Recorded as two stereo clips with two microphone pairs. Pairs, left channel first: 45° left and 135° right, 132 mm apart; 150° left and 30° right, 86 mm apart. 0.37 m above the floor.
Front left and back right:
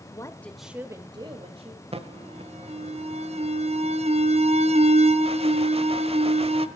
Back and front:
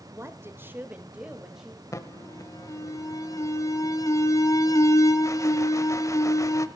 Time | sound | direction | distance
0.1 | a woman speaking | 10° left | 1.3 m
1.9 | an alarm | 165° right | 0.8 m